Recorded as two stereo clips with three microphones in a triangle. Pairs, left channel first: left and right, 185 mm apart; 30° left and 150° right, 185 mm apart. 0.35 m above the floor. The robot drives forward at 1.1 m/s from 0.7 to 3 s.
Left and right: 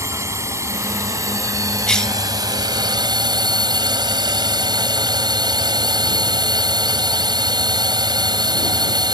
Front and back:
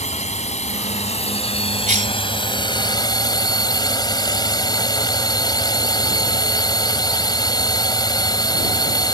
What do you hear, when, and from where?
0.0 s a drone: 15° right; by 9.2 s 30° right
1.9 s a cough: 175° left